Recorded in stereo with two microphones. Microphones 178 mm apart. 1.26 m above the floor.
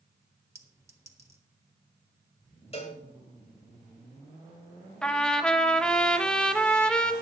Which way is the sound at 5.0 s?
5° left (ahead or behind).